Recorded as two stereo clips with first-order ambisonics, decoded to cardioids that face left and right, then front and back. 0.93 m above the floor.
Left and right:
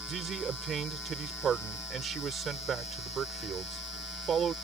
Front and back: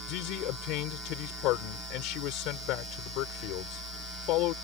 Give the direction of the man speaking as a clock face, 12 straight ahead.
1 o'clock.